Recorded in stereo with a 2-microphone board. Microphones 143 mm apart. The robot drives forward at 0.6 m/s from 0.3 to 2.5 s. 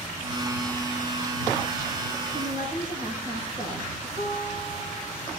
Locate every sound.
2.3 s a woman speaking: 30° right (ahead or behind), 5.5 m
4.2 s a guitar: 50° right (ahead or behind), 8 m